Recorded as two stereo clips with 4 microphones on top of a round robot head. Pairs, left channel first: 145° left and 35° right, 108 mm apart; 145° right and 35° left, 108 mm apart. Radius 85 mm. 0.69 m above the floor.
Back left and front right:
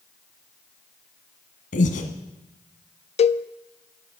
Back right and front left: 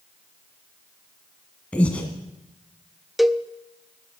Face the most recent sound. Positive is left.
turn(degrees=125)